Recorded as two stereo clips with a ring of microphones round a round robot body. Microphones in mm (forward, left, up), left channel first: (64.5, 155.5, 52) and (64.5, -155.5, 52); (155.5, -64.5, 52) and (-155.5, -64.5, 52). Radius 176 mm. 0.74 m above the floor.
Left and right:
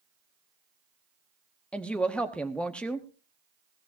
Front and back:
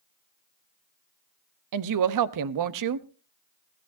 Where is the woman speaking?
175° left, 0.8 m.